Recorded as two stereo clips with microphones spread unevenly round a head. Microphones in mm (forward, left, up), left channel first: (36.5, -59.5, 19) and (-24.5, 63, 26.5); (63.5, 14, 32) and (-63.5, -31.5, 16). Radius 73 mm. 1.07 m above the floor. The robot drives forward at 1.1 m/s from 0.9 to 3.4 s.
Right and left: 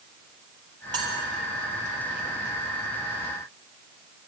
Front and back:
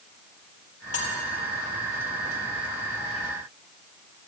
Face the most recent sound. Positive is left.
turn(degrees=105)